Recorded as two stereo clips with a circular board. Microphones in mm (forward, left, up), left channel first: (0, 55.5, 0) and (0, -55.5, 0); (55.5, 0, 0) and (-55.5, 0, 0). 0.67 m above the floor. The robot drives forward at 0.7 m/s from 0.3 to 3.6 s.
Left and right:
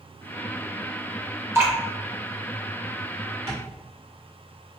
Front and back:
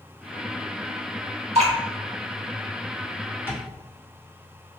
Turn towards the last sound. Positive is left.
turn(degrees=-115)